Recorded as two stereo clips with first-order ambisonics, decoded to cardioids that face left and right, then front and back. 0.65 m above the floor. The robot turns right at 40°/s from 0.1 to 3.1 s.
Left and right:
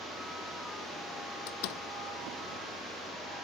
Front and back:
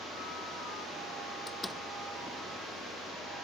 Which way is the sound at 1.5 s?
75° left.